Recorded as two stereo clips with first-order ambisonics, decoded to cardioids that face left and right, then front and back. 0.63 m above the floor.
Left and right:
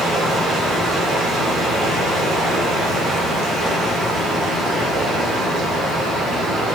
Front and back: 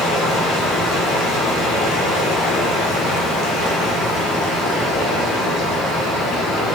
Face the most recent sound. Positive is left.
turn(degrees=-30)